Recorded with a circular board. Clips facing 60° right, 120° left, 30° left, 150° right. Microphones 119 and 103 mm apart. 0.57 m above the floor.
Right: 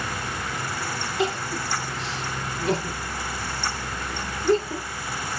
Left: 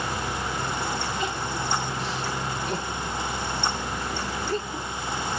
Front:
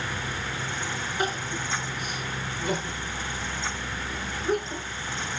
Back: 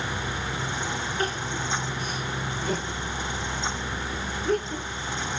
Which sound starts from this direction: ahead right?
Crying, at 1.2 s.